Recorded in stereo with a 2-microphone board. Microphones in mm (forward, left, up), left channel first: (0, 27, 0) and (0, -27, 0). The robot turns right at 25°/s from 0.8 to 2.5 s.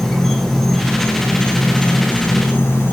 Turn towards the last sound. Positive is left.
turn(degrees=50)